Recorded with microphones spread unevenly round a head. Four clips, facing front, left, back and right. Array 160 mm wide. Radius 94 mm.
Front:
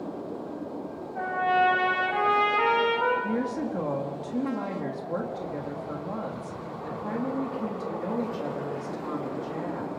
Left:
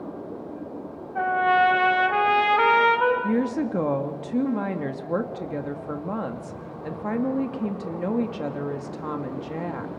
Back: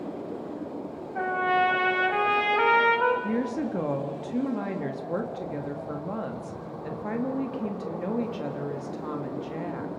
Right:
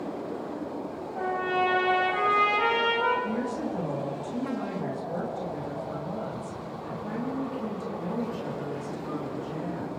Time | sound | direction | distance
1.1 | a trumpet | 75° left | 3 m
3.2 | a woman speaking | 70° left | 2 m